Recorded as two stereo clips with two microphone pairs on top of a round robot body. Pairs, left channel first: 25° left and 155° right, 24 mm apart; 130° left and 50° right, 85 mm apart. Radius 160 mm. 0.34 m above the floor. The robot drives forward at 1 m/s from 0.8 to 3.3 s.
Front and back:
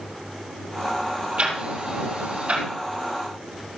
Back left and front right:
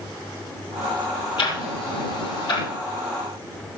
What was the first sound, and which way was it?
Ticking, 160° left.